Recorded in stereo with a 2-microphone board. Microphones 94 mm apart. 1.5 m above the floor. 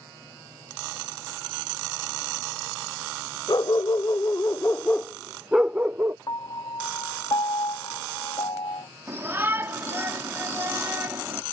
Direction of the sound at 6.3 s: 50° left (ahead or behind).